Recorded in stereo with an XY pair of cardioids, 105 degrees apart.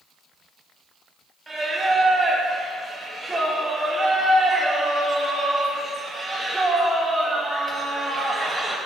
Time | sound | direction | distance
1.5 | singing | 25° right | 1.4 m